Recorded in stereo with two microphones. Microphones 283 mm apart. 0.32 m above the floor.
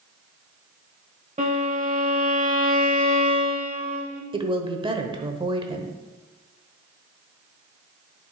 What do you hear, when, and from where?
1.4 s a violin: 25° right (ahead or behind), 1.3 m
4.3 s a woman speaking: 20° right (ahead or behind), 0.9 m